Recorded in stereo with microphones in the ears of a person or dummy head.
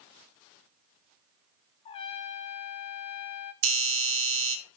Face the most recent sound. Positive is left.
turn(degrees=-80)